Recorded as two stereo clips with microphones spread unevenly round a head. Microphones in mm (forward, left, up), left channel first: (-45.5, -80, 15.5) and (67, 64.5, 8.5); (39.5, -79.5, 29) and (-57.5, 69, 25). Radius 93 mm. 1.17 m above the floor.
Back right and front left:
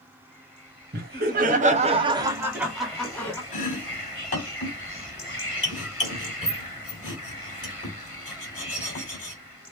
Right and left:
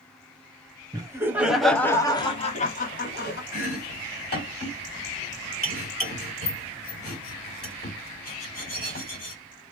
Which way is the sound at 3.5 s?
90° right.